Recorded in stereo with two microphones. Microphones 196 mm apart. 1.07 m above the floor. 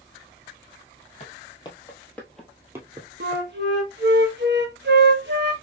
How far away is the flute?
About 1.0 m.